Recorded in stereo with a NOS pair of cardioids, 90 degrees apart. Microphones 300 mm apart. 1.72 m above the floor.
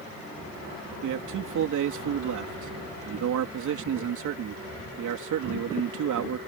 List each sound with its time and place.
1.0 s a man speaking: 65° right